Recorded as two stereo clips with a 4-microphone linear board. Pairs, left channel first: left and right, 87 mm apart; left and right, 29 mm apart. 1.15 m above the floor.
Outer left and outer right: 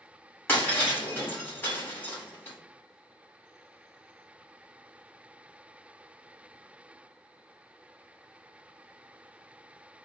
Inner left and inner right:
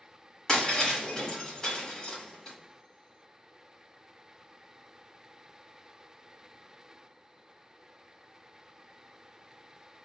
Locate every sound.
0.5 s breaking glass: 25° left (ahead or behind), 2 m